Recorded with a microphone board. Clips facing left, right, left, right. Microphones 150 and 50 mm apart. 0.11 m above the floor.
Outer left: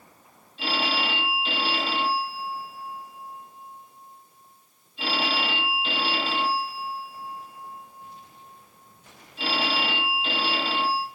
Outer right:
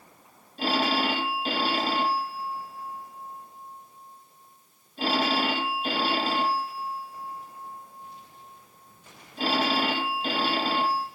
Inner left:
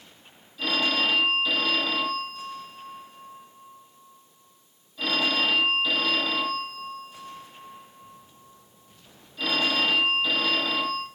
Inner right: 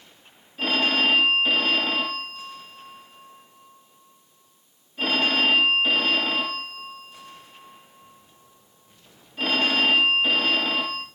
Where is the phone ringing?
45° right (ahead or behind), 2.5 m.